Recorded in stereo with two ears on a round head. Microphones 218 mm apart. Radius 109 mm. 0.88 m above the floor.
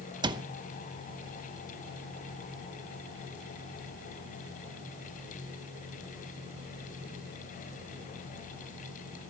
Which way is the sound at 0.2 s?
20° right (ahead or behind).